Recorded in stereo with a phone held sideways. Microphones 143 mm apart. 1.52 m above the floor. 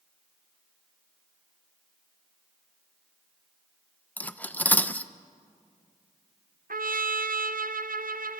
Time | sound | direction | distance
4.2 | cutlery clinking | 10° left (ahead or behind) | 0.6 m
6.7 | a trumpet | 80° right | 0.7 m